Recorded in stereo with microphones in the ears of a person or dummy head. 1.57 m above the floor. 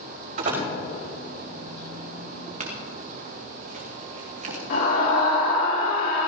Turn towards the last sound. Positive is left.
turn(degrees=50)  # may be behind; listen again after turning